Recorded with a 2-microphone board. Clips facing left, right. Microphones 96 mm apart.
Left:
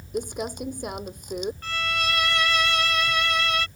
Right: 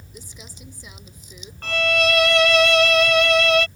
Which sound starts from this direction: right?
A violin, at 1.6 s.